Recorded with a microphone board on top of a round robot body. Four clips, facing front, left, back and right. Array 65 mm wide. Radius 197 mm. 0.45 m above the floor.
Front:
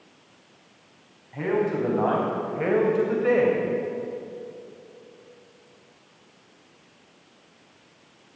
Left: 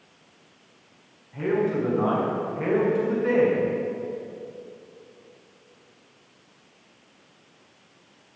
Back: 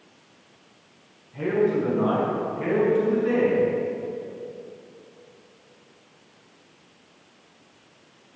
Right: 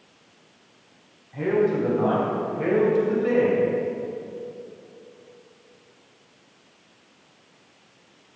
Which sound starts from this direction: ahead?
A man speaking, at 1.3 s.